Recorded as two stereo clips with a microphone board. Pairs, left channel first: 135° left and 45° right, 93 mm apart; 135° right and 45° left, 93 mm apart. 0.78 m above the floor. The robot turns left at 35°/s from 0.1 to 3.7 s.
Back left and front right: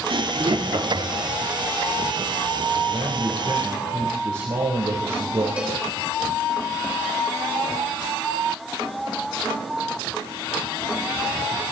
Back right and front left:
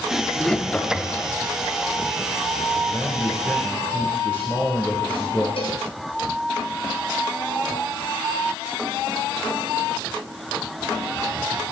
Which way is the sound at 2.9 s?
40° right.